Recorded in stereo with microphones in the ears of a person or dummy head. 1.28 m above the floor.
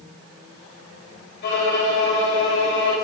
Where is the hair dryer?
I don't hear a hair dryer.